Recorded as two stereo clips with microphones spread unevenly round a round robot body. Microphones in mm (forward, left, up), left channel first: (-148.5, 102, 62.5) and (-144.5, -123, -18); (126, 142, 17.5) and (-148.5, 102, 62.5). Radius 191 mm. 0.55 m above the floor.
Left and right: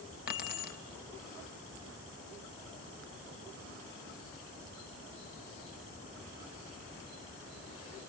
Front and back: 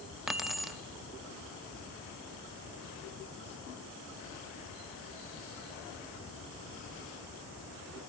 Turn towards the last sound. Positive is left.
turn(degrees=75)